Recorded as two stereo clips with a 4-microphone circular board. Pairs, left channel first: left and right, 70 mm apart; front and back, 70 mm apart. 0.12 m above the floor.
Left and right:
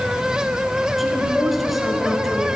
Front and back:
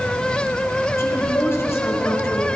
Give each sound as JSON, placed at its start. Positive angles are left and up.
{"t": 1.0, "sound": "a woman speaking", "azimuth_deg": 0, "distance_m": 2.0}